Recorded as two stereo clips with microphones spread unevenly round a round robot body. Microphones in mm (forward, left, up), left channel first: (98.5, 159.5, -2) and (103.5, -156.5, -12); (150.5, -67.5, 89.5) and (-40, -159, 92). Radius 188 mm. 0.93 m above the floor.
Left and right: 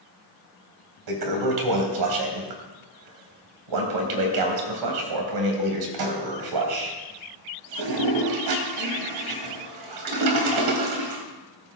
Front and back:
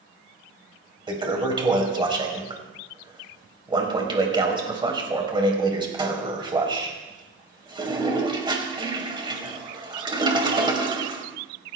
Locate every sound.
1.1 s a toilet flushing: 85° right, 3 m